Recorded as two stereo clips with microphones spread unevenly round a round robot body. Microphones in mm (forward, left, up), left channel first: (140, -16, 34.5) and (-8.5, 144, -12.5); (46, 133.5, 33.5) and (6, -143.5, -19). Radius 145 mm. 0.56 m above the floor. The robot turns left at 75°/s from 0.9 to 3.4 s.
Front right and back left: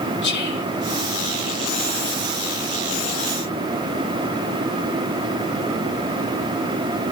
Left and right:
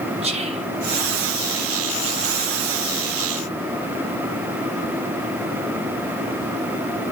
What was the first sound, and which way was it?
Whispering, 65° right.